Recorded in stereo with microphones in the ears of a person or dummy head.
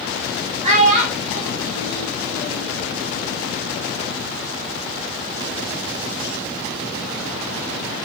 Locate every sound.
0.6 s a child speaking: 40° right (ahead or behind), 0.9 m; by 2.7 s 35° right (ahead or behind), 1.0 m